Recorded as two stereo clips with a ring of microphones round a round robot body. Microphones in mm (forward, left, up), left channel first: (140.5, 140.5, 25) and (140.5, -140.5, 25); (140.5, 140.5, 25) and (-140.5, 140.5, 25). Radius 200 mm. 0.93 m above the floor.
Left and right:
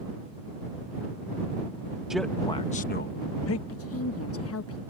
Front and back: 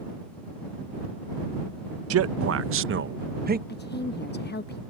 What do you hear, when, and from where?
2.1 s a man speaking: straight behind; by 3.6 s 125° left
3.7 s a woman speaking: 55° left